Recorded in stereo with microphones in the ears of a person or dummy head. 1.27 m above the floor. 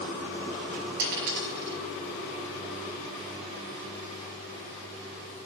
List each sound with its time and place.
1.0 s a dropped coin: 60° right (ahead or behind), 4 m